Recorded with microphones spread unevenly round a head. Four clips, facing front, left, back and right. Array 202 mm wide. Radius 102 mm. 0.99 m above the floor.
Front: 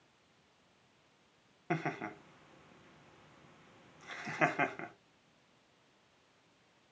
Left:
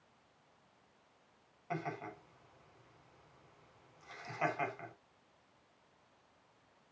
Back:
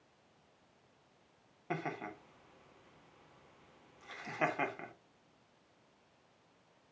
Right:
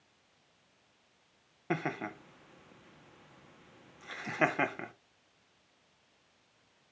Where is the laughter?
70° right, 1.6 m.